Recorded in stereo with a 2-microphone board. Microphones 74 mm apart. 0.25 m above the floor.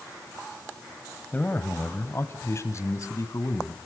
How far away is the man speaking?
About 1.4 m.